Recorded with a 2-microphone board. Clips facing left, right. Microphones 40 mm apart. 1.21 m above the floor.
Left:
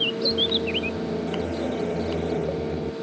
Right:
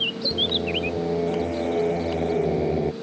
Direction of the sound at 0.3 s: 35° right (ahead or behind).